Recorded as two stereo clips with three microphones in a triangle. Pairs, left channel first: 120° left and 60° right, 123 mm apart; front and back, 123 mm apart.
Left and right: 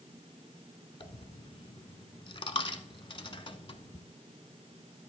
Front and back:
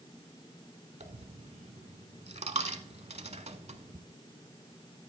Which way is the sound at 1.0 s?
160° left.